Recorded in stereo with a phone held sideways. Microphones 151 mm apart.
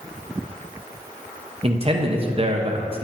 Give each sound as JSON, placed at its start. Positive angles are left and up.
{"t": 1.6, "sound": "a man speaking", "side_deg": -40, "distance_m": 0.9}